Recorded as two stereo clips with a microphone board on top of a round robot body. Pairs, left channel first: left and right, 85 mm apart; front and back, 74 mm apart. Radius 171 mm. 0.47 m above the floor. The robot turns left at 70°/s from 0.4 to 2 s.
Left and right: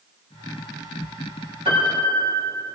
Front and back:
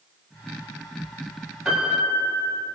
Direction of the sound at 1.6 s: 95° right.